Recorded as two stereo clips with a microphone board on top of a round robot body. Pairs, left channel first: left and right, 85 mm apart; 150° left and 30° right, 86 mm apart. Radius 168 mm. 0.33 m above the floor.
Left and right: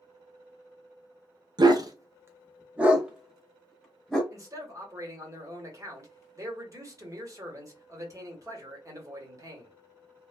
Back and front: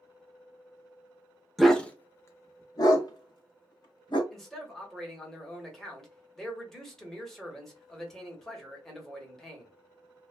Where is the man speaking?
125° right, 1.5 m.